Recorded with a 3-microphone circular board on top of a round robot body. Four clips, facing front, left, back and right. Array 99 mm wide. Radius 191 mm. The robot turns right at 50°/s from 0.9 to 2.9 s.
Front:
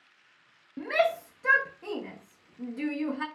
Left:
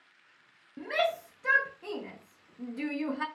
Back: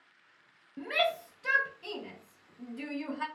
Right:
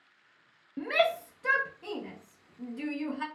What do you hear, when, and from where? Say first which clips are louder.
0.8 s a shout: right 2 dB, front 5 dB; 35° right, 0.7 m; by 3.3 s 65° left, 0.7 m